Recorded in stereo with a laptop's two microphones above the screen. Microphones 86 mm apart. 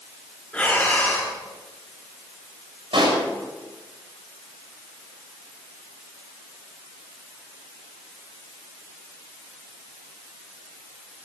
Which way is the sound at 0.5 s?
15° left (ahead or behind).